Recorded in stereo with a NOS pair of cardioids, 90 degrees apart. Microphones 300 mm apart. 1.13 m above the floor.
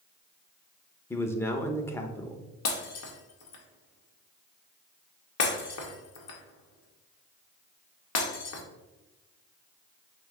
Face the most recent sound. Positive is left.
turn(degrees=60)